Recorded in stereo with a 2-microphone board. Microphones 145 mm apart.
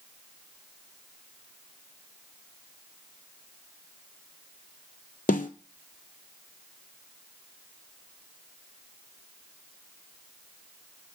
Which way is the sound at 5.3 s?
75° left (ahead or behind).